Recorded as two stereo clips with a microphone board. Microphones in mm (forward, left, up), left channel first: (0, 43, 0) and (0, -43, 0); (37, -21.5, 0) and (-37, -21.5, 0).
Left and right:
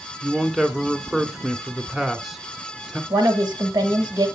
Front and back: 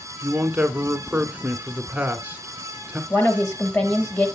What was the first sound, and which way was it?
A man speaking, 175° right.